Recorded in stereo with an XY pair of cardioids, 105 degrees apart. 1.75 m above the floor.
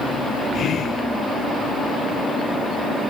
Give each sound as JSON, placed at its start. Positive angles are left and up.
{"t": 0.5, "sound": "whispering", "azimuth_deg": 55, "distance_m": 0.5}